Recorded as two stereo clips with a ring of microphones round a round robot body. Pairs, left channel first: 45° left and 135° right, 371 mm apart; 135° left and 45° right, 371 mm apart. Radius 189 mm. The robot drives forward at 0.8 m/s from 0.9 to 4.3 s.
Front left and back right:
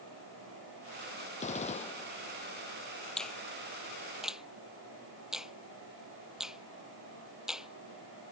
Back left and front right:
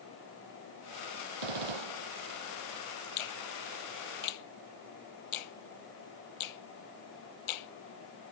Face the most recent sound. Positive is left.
turn(degrees=135)